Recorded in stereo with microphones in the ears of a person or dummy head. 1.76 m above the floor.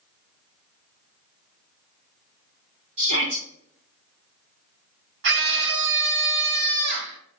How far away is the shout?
About 2.5 m.